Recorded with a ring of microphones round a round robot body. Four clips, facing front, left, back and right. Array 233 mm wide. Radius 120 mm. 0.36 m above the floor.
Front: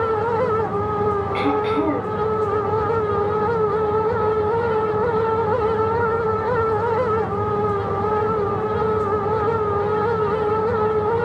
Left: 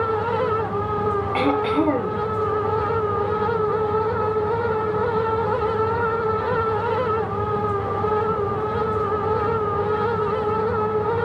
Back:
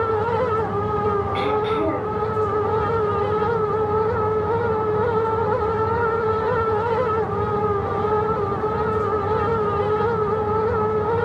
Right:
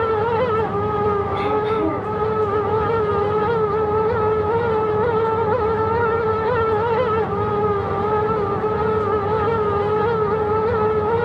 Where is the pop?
No pop in this recording.